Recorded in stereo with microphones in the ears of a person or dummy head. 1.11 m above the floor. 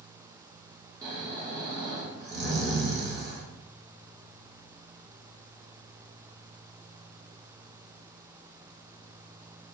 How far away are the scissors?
I don't hear scissors.